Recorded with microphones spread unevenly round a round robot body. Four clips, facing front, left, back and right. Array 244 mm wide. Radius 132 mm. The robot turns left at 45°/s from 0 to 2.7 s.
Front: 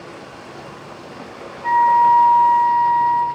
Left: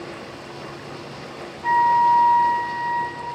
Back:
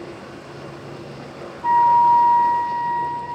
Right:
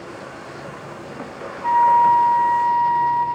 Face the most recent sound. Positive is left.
turn(degrees=155)